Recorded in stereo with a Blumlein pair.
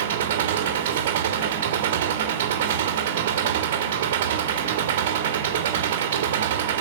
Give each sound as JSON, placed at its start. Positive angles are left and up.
{"t": 0.0, "sound": "an engine running", "azimuth_deg": -55, "distance_m": 2.0}